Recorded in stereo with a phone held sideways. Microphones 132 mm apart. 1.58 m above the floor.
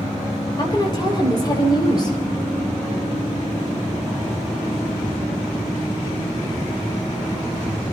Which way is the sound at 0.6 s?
30° left (ahead or behind).